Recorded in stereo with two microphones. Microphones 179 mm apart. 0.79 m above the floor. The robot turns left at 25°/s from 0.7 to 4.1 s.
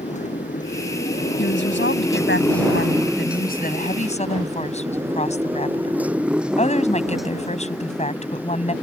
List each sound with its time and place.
0.0 s a motorcycle: 40° left (ahead or behind); by 8.8 s 10° left (ahead or behind)
1.4 s a woman speaking: 105° left; by 8.7 s 35° left